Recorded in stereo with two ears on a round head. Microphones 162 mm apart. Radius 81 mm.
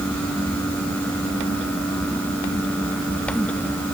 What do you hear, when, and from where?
Only background noise.